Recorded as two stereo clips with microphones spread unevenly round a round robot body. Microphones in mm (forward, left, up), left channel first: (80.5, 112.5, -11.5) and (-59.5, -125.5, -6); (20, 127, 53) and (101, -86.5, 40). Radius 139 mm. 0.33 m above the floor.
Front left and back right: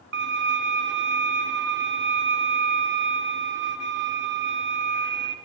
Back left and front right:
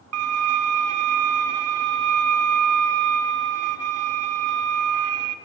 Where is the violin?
65° right, 1.9 m.